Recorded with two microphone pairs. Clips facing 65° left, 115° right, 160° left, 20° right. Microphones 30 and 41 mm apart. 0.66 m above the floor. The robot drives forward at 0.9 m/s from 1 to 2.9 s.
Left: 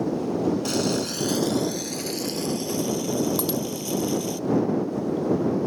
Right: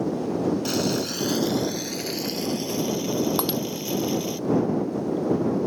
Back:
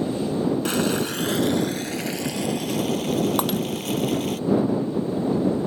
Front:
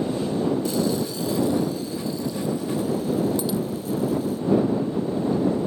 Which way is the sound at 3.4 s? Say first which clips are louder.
Right 1 dB, back 1 dB; 170° right.